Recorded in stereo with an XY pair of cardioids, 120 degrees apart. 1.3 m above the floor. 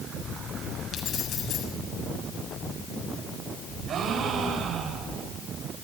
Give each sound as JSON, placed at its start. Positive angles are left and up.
{"t": 0.9, "sound": "keys jangling", "azimuth_deg": 50, "distance_m": 7.5}
{"t": 3.9, "sound": "a gasp", "azimuth_deg": -55, "distance_m": 5.0}